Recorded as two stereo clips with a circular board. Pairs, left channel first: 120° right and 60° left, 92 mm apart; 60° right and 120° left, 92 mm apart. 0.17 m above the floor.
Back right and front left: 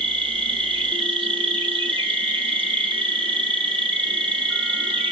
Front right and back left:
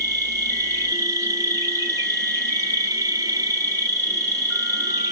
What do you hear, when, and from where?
0.0 s an insect: 70° left, 1.2 m